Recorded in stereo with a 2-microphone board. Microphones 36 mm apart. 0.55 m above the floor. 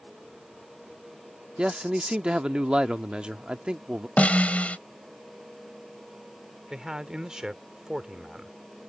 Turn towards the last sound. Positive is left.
turn(degrees=-20)  # may be behind; listen again after turning